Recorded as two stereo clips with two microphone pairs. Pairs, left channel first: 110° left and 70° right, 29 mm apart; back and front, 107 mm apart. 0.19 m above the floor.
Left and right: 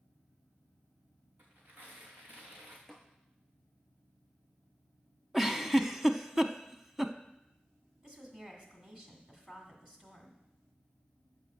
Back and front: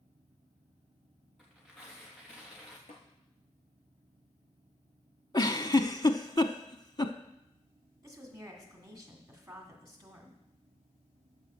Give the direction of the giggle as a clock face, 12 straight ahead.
5 o'clock.